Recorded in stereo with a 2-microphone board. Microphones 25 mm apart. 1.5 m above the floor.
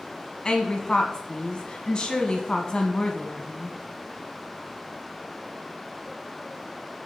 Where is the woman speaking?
30° left (ahead or behind), 1.2 m.